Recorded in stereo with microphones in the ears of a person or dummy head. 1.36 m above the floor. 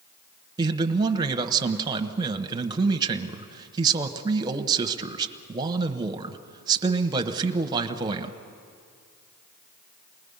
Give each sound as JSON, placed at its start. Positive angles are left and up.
{"t": 0.6, "sound": "a man speaking", "side_deg": -25, "distance_m": 1.1}